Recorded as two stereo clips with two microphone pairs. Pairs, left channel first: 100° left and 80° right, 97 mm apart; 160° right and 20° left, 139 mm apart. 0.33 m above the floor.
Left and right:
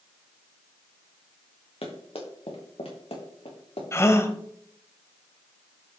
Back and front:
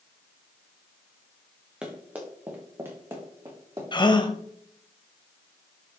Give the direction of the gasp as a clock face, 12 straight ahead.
7 o'clock.